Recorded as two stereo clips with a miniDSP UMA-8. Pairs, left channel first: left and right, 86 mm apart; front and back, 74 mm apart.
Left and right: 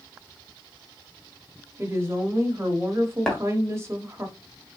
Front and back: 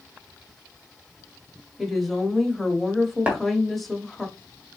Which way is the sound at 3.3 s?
155° left.